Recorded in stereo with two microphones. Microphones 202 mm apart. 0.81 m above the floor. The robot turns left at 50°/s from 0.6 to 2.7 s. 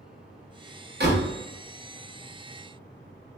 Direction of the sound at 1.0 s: 55° right (ahead or behind).